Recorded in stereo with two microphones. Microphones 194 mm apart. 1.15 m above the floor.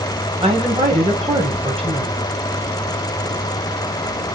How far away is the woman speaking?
About 1.5 m.